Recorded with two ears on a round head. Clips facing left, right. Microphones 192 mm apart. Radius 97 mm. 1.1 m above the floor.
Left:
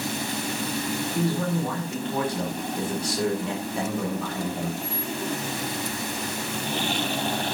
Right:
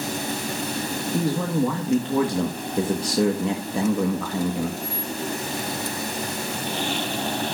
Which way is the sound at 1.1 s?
60° right (ahead or behind).